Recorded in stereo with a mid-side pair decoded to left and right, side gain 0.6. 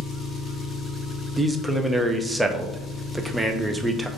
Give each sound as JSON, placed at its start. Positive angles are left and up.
{"t": 0.0, "sound": "an engine running", "azimuth_deg": 30, "distance_m": 1.1}
{"t": 1.4, "sound": "a man speaking", "azimuth_deg": -10, "distance_m": 0.6}